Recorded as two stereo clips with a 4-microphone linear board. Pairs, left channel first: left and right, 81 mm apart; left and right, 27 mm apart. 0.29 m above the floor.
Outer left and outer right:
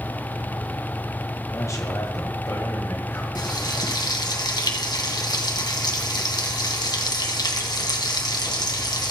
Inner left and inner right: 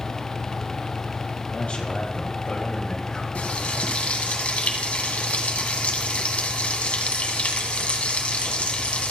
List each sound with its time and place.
1.5 s a man speaking: 40° left (ahead or behind), 1.8 m
3.4 s frying: 60° left (ahead or behind), 2.0 m